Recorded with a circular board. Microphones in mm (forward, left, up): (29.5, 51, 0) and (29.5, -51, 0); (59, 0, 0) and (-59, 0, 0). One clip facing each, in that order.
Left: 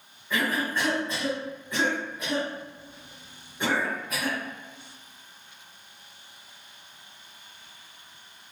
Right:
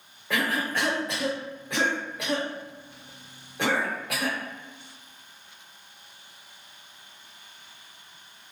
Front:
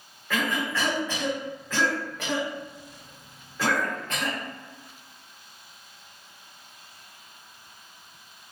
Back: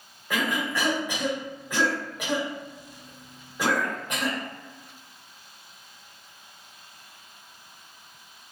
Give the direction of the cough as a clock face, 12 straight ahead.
3 o'clock.